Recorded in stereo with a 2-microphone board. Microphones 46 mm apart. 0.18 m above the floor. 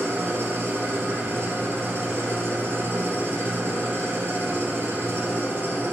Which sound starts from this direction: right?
An engine running, at 0.0 s.